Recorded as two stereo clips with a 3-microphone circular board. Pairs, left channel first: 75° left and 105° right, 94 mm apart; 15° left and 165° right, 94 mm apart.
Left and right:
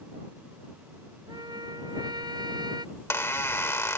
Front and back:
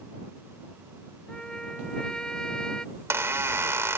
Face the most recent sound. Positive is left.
turn(degrees=135)